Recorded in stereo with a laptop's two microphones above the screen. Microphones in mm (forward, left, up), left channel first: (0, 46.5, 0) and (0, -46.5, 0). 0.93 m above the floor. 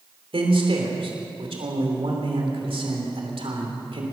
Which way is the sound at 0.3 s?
80° right.